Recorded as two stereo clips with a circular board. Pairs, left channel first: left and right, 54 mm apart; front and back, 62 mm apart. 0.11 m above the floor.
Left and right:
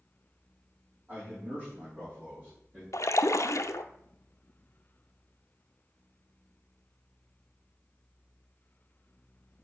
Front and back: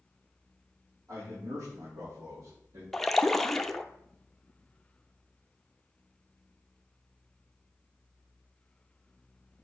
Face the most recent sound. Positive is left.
turn(degrees=85)